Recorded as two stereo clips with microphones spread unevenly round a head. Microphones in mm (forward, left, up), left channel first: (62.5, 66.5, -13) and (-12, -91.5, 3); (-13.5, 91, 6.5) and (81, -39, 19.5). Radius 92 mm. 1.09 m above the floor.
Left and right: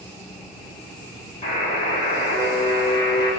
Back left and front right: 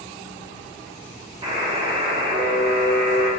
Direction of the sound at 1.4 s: 10° left.